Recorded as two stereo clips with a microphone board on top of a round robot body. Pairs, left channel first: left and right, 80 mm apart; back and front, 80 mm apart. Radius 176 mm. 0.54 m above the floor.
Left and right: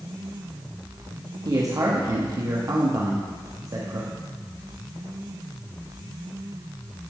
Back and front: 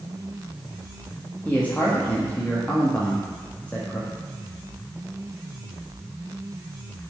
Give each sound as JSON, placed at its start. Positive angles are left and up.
{"t": 1.4, "sound": "a man speaking", "azimuth_deg": -115, "distance_m": 1.2}